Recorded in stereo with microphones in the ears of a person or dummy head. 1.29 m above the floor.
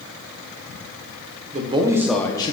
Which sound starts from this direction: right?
A man speaking, at 1.5 s.